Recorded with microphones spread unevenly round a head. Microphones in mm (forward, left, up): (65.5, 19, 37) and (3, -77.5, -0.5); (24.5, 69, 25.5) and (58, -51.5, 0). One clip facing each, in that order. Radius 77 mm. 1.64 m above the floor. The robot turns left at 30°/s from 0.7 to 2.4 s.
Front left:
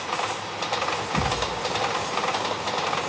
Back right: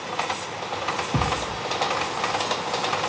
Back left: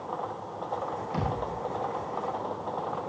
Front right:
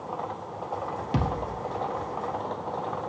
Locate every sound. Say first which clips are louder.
1.1 s a thud: back right 1 dB, front right 3 dB; 75° right, 2.5 m; by 1.5 s 85° right, 2.5 m